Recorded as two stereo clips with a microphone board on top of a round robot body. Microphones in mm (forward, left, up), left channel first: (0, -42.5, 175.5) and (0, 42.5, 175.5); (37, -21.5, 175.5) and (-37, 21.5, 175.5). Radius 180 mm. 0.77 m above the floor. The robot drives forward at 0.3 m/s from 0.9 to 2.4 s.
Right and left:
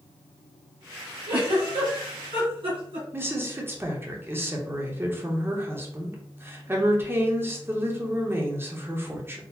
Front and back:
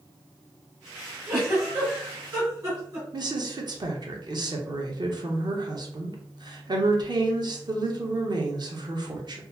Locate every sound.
1.3 s a giggle: 85° left, 1.8 m; by 3.0 s 100° left, 1.8 m
3.1 s a woman speaking: 150° left, 1.1 m